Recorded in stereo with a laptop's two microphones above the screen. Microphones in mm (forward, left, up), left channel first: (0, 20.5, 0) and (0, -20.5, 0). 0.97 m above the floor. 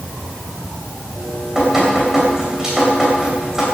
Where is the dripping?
15° right (ahead or behind), 3.5 m.